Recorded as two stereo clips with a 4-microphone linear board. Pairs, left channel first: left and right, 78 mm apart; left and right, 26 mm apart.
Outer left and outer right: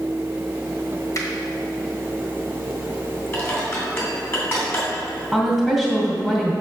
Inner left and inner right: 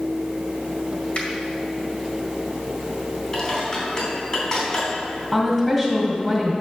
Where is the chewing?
I don't hear chewing.